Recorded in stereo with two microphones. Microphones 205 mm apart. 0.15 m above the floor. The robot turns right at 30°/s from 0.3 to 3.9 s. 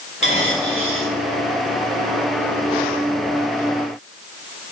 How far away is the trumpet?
I don't hear a trumpet.